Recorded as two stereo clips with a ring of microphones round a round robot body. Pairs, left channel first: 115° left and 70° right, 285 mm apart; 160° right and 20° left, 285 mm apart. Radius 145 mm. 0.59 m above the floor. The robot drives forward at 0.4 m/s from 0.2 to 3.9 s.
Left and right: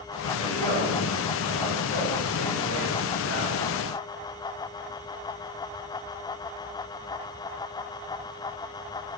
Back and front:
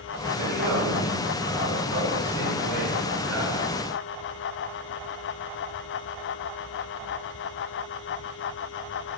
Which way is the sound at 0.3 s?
40° left.